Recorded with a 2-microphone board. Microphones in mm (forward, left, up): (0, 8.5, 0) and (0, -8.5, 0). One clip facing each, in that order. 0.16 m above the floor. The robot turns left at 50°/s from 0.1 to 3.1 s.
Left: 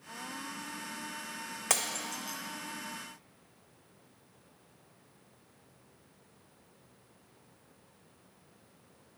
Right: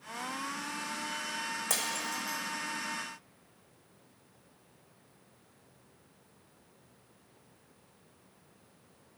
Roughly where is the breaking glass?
Left.